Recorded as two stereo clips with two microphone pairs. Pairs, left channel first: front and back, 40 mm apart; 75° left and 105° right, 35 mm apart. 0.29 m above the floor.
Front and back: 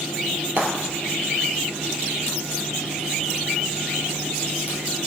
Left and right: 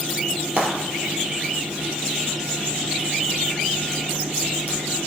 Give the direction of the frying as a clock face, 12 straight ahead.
5 o'clock.